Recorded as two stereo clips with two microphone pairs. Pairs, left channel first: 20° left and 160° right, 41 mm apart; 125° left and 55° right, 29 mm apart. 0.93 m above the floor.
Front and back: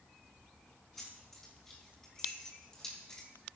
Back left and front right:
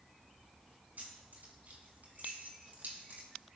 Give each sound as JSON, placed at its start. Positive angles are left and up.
{"t": 1.0, "sound": "keys jangling", "azimuth_deg": -65, "distance_m": 5.5}